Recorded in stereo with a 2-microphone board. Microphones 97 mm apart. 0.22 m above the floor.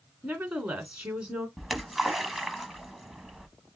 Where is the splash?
Centre (ahead or behind), 0.9 m.